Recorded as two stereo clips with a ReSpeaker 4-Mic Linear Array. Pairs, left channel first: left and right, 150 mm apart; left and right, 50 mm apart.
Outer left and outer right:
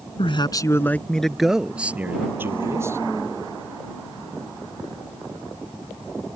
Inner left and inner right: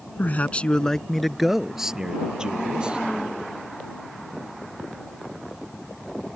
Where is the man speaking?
40° left (ahead or behind); by 3.0 s 20° right (ahead or behind).